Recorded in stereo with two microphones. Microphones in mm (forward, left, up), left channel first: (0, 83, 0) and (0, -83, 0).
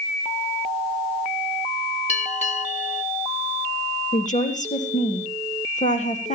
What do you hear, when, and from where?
2.1 s a bell: 45° left (ahead or behind), 1.1 m
4.1 s a woman speaking: 50° left (ahead or behind), 3 m